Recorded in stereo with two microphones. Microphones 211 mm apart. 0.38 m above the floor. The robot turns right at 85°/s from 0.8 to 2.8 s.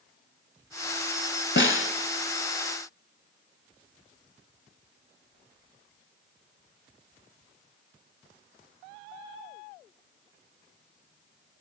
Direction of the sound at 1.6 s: 65° left.